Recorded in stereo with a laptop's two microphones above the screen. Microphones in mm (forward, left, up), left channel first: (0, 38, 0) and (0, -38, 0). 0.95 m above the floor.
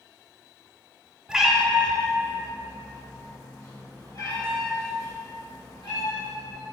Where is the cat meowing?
10° right (ahead or behind), 1.0 m; by 6.7 s 60° left (ahead or behind), 5 m.